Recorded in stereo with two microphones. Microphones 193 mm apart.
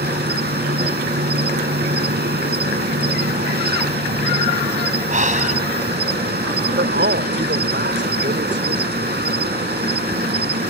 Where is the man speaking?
70° right (ahead or behind).